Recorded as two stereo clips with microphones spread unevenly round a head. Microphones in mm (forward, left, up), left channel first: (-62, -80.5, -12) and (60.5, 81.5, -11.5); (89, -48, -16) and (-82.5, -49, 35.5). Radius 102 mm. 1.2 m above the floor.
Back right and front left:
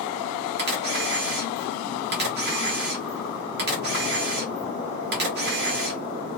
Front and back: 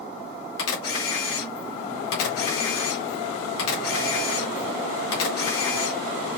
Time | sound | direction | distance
0.6 | a camera shutter | 10° left | 2 m